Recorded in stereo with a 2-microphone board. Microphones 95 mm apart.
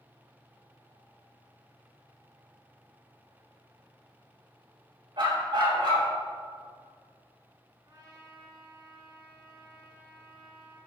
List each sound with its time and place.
5.2 s a dog barking: 60° right (ahead or behind), 3.5 m
7.8 s a trumpet: 45° right (ahead or behind), 3 m